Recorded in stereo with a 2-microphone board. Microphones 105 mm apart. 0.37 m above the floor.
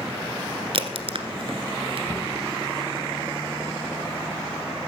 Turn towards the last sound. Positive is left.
turn(degrees=20)  # may be behind; listen again after turning